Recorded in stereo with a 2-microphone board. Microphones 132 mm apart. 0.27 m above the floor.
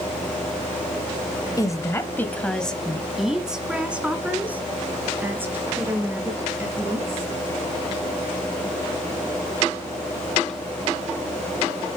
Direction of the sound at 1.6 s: 30° left (ahead or behind).